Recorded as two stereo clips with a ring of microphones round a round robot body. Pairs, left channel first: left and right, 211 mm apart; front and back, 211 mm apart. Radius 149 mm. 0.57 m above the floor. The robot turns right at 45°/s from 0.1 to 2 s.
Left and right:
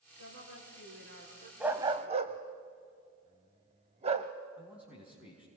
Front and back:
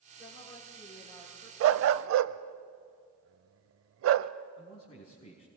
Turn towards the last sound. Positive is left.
turn(degrees=-5)